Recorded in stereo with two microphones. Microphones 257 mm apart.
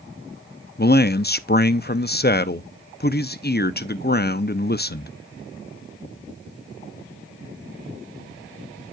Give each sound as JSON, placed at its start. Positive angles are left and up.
{"t": 0.8, "sound": "a man speaking", "side_deg": 35, "distance_m": 0.7}